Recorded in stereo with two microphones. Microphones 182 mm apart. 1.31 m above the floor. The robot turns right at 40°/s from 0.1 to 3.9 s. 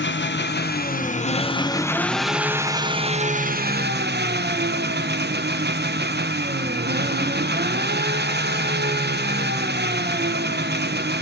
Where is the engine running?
95° left, 0.8 m; by 11.2 s 115° right, 0.8 m.